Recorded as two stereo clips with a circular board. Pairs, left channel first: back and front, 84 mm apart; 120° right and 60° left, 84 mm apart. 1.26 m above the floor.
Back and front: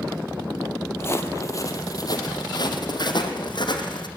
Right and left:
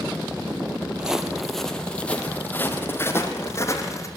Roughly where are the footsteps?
Behind left.